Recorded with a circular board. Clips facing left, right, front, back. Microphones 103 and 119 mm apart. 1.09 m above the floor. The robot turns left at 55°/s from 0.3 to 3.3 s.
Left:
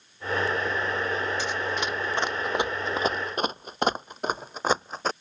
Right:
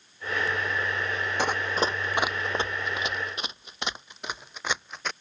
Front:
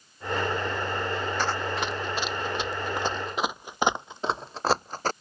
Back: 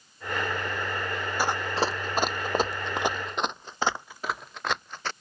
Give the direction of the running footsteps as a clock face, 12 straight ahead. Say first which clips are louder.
Right 2 dB, back 1 dB; 3 o'clock.